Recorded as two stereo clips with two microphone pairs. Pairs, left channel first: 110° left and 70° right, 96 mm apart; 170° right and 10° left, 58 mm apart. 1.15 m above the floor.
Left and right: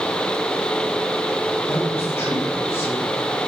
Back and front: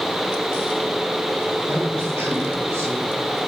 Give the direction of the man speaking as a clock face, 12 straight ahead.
10 o'clock.